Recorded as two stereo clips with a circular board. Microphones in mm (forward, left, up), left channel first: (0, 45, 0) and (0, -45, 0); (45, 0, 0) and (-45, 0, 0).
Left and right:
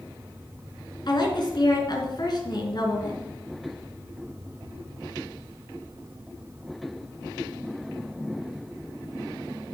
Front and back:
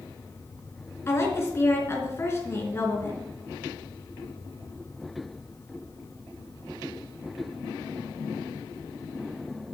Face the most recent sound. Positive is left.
turn(degrees=60)